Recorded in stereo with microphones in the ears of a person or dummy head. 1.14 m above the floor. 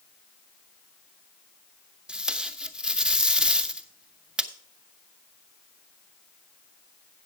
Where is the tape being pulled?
5° right (ahead or behind), 0.9 m.